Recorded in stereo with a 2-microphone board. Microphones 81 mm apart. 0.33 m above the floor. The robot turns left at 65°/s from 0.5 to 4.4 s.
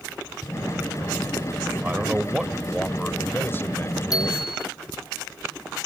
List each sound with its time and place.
1.8 s a man speaking: 135° right; by 4.5 s 60° left
4.1 s a bicycle bell: 50° left (ahead or behind); by 4.7 s 70° left (ahead or behind)